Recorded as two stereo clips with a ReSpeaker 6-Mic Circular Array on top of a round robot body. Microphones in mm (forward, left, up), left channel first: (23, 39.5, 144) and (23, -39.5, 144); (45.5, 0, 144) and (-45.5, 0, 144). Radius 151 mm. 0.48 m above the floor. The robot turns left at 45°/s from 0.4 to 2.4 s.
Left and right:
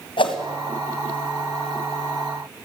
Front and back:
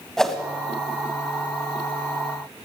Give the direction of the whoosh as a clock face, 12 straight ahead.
9 o'clock.